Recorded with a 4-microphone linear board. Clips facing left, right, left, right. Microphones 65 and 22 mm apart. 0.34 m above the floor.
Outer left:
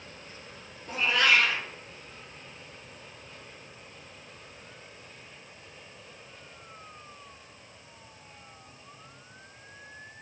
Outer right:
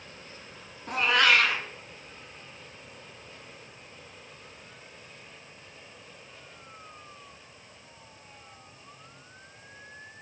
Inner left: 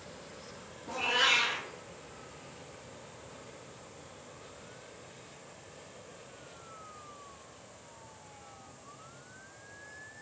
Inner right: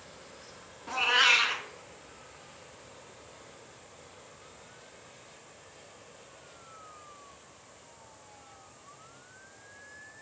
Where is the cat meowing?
65° right (ahead or behind), 1.2 m.